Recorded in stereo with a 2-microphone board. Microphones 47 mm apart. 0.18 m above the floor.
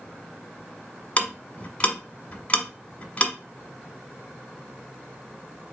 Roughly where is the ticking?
Left.